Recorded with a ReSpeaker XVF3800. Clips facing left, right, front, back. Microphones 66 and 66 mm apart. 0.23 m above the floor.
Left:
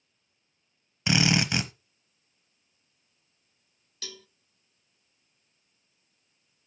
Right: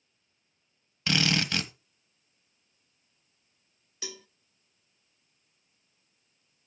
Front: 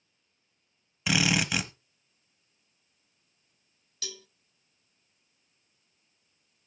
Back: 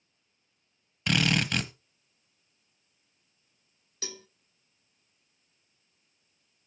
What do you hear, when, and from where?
1.1 s a drill: 70° left, 1.1 m
4.0 s a cowbell: 150° right, 0.6 m